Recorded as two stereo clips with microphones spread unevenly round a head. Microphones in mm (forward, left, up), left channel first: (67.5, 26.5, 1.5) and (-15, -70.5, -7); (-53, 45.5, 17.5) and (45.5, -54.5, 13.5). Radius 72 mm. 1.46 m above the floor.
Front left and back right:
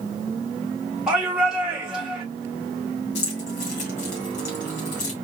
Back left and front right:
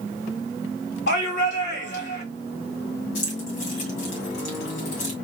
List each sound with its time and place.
1.1 s a shout: 140° left, 3 m
3.1 s keys jangling: 95° left, 2.5 m